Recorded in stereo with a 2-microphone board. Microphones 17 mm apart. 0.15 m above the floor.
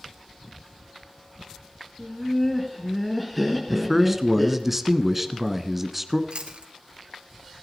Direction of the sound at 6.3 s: 60° right (ahead or behind).